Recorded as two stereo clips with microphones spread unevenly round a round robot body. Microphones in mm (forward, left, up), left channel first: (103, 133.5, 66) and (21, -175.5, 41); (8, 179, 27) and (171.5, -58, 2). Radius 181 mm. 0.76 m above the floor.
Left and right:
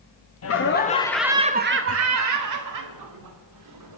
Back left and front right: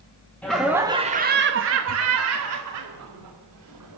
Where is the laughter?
35° left, 1.3 m; by 4.0 s 100° right, 3.5 m.